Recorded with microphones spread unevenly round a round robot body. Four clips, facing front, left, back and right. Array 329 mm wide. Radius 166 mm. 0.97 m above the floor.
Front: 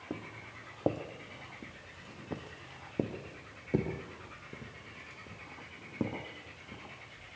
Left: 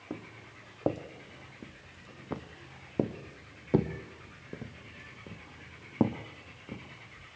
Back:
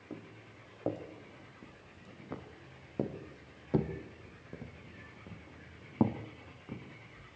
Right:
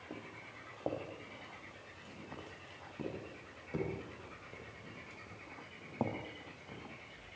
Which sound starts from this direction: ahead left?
Footsteps, at 0.1 s.